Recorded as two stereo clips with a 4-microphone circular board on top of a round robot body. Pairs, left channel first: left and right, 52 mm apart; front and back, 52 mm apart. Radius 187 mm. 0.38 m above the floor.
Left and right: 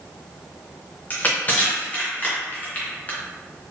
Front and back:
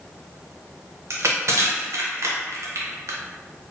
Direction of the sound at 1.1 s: 150° left.